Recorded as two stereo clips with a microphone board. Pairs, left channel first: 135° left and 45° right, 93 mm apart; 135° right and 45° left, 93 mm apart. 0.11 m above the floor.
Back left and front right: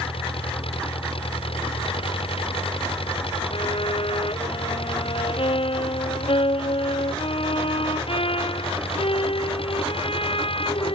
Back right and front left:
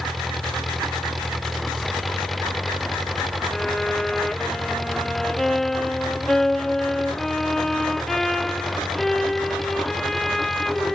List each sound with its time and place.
0.0 s an engine running: 135° left
3.5 s a violin: 140° left